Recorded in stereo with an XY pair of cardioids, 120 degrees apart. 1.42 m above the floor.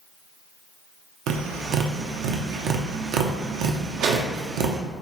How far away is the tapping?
About 0.6 m.